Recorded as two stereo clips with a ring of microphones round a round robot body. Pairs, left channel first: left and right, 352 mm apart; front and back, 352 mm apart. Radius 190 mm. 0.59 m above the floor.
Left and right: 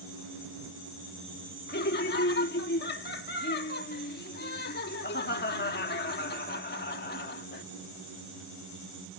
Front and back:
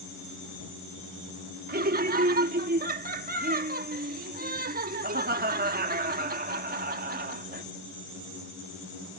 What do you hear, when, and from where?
1.7 s laughter: 135° left